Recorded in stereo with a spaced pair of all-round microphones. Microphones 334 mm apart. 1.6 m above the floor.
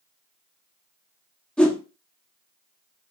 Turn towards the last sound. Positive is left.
turn(degrees=5)  # may be behind; listen again after turning